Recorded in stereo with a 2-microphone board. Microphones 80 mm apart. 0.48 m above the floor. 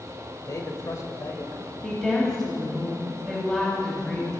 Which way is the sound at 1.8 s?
10° left (ahead or behind).